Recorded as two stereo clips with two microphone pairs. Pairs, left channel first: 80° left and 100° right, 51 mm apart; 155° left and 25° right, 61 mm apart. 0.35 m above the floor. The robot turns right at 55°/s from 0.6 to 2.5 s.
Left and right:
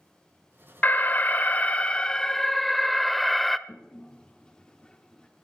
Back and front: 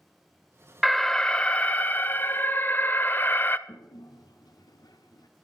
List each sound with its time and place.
0.8 s an alarm: 70° left, 0.6 m; by 3.6 s 160° left, 0.6 m
3.7 s a toilet flushing: 155° left, 1.1 m